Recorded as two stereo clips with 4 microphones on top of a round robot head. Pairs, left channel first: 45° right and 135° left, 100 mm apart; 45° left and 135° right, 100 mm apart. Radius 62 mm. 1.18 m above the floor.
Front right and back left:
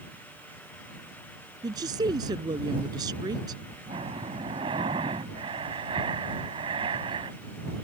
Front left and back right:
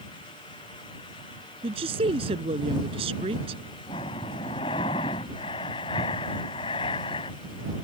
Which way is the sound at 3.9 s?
90° left.